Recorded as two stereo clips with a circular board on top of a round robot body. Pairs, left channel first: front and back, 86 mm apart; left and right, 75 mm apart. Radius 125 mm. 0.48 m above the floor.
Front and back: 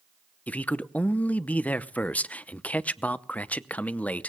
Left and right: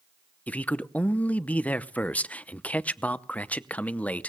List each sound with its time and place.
0.5 s a man speaking: 50° left, 0.7 m